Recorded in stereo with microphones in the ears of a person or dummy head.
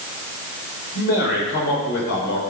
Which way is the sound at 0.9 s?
55° left (ahead or behind).